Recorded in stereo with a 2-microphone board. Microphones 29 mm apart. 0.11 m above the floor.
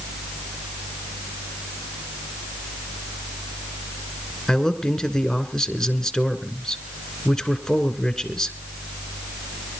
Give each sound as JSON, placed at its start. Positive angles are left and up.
{"t": 4.5, "sound": "a man speaking", "side_deg": 15, "distance_m": 1.8}